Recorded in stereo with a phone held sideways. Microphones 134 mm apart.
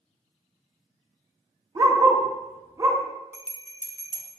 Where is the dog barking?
30° right (ahead or behind), 0.8 m.